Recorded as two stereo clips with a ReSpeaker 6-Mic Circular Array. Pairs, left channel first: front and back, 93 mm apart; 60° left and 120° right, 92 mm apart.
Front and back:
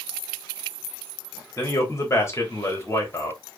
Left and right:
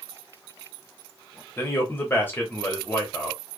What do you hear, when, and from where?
1.6 s a man speaking: 15° left, 0.9 m